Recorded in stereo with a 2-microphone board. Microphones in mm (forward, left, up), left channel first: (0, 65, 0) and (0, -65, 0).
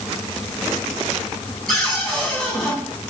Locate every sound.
1.7 s a cupboard door: centre (ahead or behind), 5.5 m